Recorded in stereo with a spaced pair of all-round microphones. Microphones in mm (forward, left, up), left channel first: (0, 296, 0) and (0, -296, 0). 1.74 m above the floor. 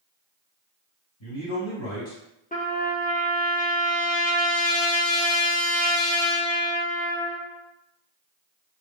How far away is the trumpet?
About 0.5 m.